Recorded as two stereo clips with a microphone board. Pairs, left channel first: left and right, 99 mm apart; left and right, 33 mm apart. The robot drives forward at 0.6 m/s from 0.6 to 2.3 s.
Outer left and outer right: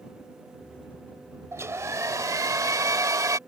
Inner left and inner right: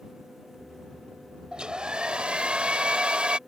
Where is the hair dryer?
30° right (ahead or behind); by 3.4 s 35° right (ahead or behind).